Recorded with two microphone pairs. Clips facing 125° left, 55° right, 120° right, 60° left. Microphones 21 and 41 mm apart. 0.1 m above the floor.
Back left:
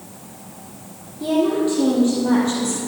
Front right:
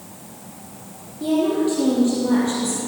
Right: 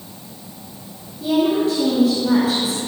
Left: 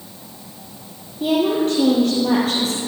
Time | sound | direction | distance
1.2 | a woman speaking | 40° left | 3.5 m